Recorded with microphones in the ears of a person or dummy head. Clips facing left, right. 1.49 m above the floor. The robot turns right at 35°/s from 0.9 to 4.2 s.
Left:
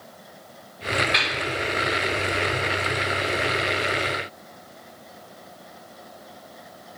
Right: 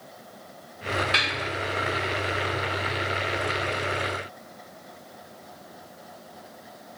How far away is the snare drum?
About 1.9 m.